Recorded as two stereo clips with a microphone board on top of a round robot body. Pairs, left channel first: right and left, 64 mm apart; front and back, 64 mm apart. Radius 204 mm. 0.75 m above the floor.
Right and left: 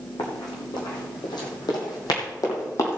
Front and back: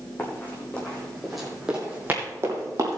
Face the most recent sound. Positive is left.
turn(degrees=-140)